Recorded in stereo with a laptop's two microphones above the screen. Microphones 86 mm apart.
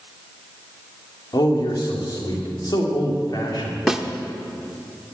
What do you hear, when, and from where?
1.3 s a man speaking: 55° left (ahead or behind), 2.5 m
3.9 s a snare drum: 5° right (ahead or behind), 1.0 m